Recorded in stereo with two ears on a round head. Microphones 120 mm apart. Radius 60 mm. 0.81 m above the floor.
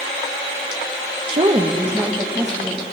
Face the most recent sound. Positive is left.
turn(degrees=0)  # may be behind; listen again after turning